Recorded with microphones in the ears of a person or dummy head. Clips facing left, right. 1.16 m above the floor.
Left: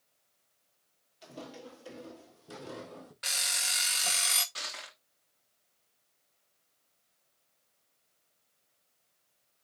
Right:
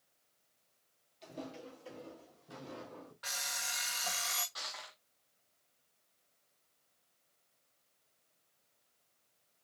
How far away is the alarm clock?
About 0.6 m.